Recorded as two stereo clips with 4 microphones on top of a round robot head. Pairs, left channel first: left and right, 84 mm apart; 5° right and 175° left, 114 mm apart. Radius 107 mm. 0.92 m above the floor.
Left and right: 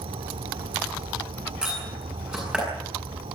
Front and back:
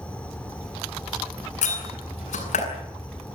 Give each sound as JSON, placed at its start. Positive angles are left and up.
{"t": 0.0, "sound": "an insect", "azimuth_deg": -85, "distance_m": 1.2}
{"t": 1.6, "sound": "a door slam", "azimuth_deg": -10, "distance_m": 8.0}